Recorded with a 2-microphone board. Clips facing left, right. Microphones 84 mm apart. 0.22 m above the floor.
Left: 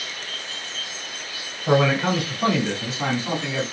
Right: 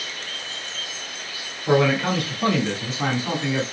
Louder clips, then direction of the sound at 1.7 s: Even; 20° left (ahead or behind).